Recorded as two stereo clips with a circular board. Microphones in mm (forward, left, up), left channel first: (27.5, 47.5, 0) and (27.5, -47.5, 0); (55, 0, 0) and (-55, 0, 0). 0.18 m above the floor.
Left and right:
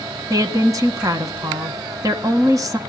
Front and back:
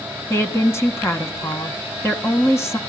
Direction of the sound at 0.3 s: 55° right.